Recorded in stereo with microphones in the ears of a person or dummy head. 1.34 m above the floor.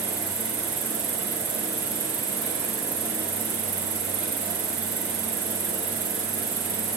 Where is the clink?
No clink in this recording.